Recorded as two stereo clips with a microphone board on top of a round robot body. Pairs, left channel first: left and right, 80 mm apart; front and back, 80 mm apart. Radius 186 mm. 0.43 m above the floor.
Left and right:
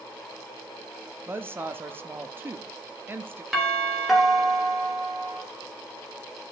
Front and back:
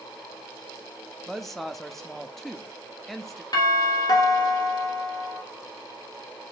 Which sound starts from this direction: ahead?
A doorbell, at 3.5 s.